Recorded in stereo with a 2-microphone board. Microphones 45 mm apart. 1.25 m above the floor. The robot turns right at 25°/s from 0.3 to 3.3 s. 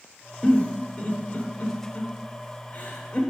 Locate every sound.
0.4 s a giggle: 35° left (ahead or behind), 1.1 m